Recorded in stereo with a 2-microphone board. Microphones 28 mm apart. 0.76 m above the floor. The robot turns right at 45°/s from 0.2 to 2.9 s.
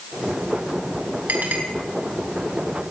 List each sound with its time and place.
1.3 s a clink: 85° right, 4 m; by 1.6 s 75° right (ahead or behind), 4 m